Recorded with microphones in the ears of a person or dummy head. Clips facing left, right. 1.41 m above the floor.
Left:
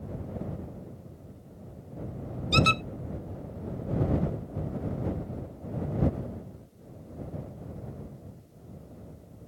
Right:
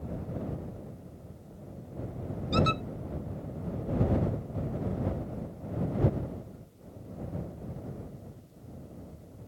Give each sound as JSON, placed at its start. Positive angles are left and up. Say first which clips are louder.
{"t": 2.5, "sound": "a squeak", "louder": "left 1 dB", "side_deg": 35}